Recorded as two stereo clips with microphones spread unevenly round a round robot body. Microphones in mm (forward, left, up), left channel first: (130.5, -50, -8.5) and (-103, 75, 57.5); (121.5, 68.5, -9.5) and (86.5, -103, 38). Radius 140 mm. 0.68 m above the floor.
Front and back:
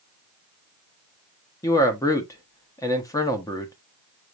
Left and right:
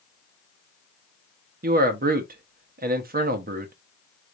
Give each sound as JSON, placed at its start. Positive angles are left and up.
{"t": 1.6, "sound": "a man speaking", "azimuth_deg": -80, "distance_m": 0.9}